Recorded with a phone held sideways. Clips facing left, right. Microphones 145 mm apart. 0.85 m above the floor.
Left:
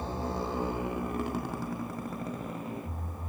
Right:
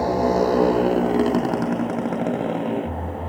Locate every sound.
0.0 s a motorcycle: 80° right